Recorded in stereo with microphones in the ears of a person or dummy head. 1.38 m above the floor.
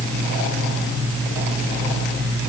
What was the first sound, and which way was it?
Only background noise.